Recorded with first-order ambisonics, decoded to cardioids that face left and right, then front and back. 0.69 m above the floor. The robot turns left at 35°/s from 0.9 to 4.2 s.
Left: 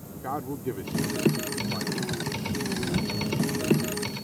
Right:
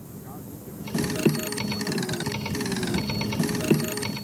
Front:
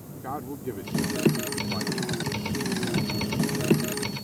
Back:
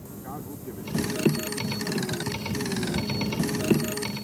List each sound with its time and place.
0.2 s a man speaking: 65° left; by 2.3 s 15° left